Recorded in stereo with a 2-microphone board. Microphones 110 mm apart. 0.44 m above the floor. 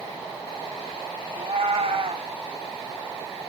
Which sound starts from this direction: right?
A cat meowing, at 1.3 s.